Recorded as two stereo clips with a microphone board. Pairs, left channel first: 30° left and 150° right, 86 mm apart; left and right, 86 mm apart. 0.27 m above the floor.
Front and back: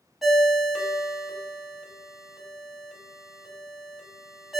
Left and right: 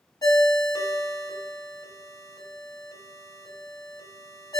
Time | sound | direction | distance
0.2 | a ringtone | 125° left | 0.6 m